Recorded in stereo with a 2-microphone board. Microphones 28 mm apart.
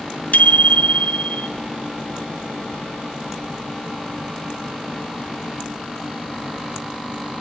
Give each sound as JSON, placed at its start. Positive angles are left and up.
{"t": 0.3, "sound": "a bicycle bell", "side_deg": 55, "distance_m": 4.5}